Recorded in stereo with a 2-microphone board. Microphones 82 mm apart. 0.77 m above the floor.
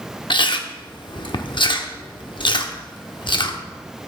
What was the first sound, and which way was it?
Chewing, 75° left (ahead or behind).